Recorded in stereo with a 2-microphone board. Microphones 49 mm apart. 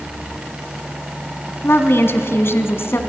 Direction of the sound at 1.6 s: 55° left (ahead or behind).